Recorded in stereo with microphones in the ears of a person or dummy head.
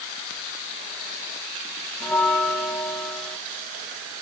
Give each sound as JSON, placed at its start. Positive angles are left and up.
{"t": 2.0, "sound": "a bell", "side_deg": 5, "distance_m": 0.9}